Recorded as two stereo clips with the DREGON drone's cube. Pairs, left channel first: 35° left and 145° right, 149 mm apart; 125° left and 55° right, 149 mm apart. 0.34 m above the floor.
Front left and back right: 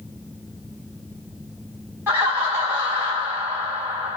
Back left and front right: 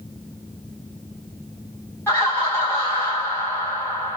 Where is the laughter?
165° left, 1.3 m.